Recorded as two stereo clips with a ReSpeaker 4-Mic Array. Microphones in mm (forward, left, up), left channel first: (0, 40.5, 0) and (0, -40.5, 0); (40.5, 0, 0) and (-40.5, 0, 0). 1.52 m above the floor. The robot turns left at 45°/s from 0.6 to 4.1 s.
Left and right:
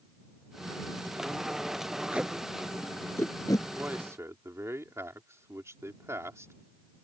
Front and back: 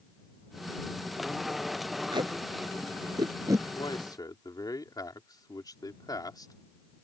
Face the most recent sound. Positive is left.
turn(degrees=-35)